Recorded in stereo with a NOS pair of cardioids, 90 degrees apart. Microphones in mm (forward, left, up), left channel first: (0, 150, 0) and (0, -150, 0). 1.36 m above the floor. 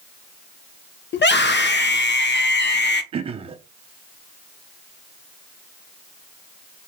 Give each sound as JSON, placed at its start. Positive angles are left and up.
{"t": 1.1, "sound": "a scream", "azimuth_deg": 35, "distance_m": 1.0}
{"t": 3.1, "sound": "throat clearing", "azimuth_deg": -20, "distance_m": 0.7}